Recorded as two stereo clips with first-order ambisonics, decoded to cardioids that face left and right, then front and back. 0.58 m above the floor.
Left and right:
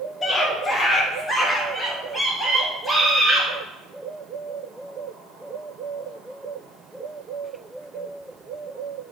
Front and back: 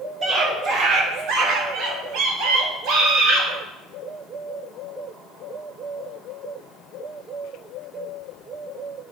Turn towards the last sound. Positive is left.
turn(degrees=175)